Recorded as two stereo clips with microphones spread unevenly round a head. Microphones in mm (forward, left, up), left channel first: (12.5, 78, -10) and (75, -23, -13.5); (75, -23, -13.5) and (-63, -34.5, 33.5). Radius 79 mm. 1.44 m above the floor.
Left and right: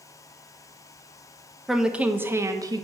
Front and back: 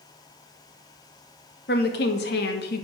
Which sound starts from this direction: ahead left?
A woman speaking, at 1.7 s.